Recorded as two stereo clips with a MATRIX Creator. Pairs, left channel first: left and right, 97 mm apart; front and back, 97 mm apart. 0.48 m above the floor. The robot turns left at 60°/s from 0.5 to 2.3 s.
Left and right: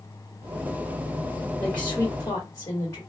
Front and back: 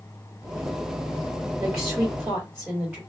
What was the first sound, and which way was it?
A woman speaking, 170° left.